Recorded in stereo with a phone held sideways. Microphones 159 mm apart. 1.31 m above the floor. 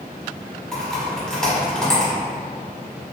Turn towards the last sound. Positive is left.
turn(degrees=5)  # may be behind; listen again after turning